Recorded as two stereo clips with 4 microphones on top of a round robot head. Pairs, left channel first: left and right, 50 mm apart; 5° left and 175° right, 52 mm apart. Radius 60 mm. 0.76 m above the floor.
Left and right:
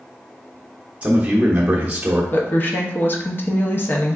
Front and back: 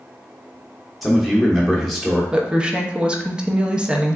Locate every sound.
1.0 s a man speaking: 85° right, 0.8 m
2.3 s a woman speaking: 120° left, 0.7 m